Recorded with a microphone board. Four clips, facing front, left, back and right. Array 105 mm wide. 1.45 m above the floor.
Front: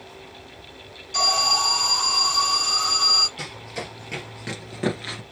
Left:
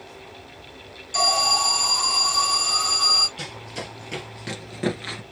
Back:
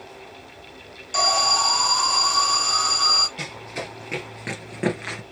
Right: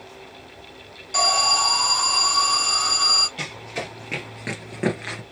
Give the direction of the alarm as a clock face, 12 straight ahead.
5 o'clock.